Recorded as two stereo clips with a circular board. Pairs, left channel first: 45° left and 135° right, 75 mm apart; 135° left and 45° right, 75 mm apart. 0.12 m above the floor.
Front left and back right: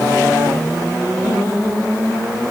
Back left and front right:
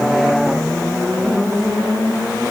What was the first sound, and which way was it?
Only background noise.